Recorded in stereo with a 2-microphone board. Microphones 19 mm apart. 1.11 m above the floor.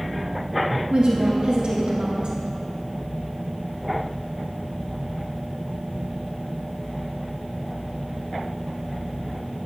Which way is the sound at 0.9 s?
65° right (ahead or behind).